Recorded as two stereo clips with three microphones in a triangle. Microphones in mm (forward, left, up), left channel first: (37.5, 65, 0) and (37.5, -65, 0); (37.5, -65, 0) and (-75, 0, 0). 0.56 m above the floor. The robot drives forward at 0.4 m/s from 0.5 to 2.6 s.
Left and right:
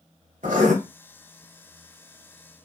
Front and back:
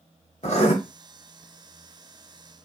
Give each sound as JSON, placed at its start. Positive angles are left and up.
{"t": 0.4, "sound": "writing", "azimuth_deg": -65, "distance_m": 1.1}